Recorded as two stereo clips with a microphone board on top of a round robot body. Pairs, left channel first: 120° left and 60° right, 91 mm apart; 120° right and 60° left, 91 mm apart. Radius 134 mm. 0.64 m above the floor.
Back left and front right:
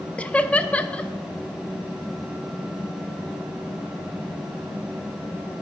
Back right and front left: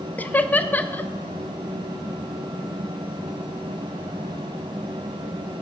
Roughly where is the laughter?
Behind.